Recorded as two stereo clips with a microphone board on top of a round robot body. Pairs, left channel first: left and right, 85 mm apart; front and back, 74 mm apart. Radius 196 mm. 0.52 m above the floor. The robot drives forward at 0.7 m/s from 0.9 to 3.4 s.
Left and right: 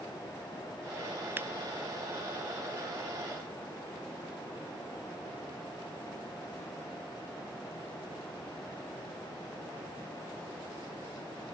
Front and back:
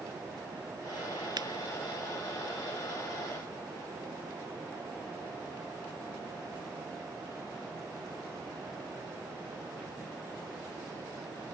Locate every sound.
1.4 s a finger snap: 155° right